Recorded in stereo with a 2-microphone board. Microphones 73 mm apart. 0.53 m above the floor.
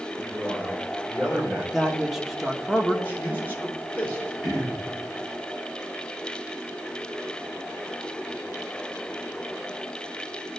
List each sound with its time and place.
0.2 s a man speaking: 10° right (ahead or behind), 1.9 m
1.7 s a man speaking: centre (ahead or behind), 0.9 m
3.0 s a man speaking: 25° left (ahead or behind), 2 m
4.4 s throat clearing: centre (ahead or behind), 3.5 m